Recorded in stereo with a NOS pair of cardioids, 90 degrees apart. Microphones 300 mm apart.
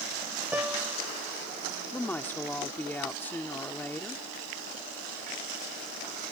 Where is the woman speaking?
5° left.